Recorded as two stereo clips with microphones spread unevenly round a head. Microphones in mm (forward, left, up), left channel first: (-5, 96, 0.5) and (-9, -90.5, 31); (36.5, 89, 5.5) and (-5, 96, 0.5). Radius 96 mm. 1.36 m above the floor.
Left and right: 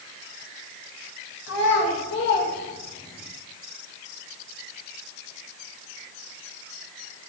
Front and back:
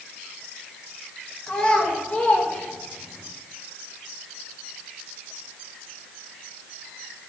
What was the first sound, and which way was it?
A child speaking, 60° left.